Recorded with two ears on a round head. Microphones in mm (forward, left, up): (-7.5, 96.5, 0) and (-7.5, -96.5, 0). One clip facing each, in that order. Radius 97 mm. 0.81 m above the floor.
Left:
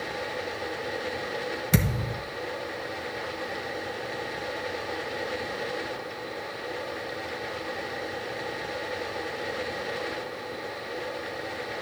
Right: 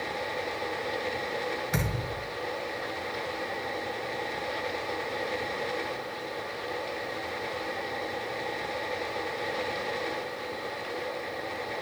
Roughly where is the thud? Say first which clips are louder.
Left 5 dB; left.